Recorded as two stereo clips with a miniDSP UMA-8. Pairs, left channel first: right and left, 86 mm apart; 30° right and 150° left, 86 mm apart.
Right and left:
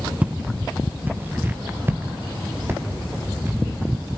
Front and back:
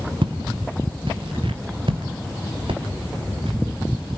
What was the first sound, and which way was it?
Footsteps, 165° left.